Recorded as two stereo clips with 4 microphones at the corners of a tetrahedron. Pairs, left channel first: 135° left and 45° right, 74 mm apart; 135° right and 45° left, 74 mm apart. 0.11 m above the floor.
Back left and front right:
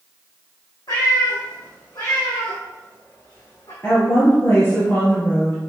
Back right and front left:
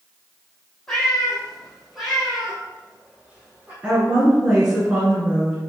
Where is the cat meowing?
145° left, 3 m; by 3.7 s 115° left, 3.5 m.